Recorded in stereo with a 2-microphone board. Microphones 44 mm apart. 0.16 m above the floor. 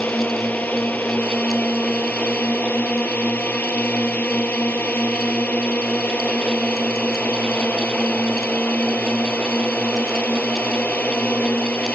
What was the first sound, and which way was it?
A drone, 40° left (ahead or behind).